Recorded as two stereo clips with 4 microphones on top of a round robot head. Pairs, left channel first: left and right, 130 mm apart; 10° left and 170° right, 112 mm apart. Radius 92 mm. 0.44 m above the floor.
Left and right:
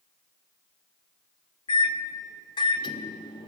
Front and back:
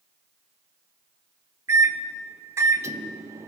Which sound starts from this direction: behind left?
A microwave, at 1.7 s.